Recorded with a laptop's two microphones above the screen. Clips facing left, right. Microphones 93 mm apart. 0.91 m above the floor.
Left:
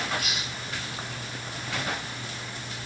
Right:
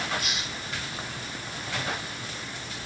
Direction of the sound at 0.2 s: 5° left (ahead or behind).